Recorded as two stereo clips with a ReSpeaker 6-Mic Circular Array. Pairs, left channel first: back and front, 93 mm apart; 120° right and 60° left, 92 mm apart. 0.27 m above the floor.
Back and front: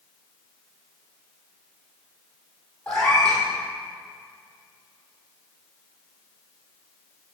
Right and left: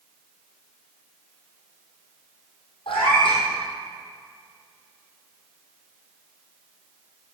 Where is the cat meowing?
100° right, 3 m.